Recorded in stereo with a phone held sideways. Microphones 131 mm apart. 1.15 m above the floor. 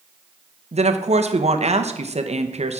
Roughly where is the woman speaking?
Right.